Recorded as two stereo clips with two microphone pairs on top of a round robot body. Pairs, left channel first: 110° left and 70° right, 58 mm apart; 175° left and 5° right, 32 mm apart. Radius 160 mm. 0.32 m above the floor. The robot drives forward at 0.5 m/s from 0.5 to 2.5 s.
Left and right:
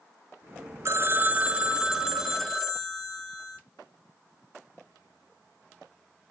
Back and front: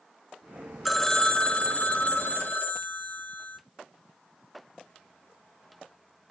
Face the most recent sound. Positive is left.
turn(degrees=-160)